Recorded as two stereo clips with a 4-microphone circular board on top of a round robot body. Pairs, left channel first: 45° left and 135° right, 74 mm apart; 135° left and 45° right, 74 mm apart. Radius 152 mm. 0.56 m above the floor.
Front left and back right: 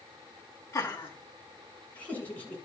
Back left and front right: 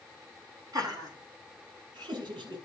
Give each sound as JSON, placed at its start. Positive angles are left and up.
{"t": 0.7, "sound": "laughter", "azimuth_deg": -10, "distance_m": 6.0}